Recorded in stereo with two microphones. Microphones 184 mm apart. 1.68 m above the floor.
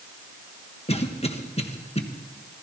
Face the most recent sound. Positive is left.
turn(degrees=35)  # may be behind; listen again after turning